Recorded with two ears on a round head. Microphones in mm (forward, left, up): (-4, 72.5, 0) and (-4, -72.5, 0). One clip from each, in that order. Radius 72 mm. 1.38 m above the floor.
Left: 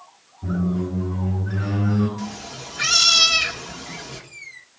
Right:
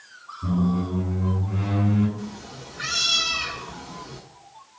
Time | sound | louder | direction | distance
0.4 | a squeak | even | 75° right (ahead or behind) | 7 m
2.2 | a cat meowing | left 5 dB | 50° left (ahead or behind) | 1.2 m